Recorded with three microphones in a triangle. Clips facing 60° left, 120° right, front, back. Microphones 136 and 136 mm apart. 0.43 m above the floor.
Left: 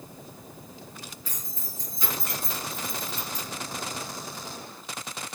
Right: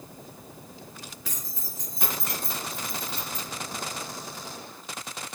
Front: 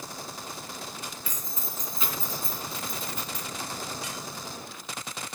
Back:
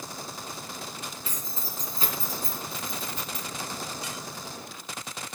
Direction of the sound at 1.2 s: 120° right.